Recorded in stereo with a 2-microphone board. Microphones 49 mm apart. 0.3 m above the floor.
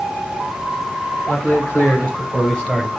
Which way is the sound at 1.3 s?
40° left (ahead or behind).